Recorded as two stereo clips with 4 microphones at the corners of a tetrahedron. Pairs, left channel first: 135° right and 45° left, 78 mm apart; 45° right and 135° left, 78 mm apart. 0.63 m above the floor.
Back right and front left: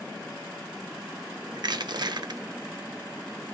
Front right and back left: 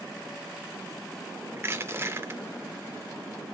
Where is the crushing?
75° left, 0.5 m.